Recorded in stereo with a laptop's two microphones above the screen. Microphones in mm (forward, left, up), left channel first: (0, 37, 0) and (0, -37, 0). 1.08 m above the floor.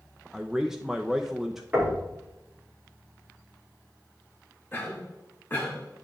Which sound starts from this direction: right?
Knocking, at 1.7 s.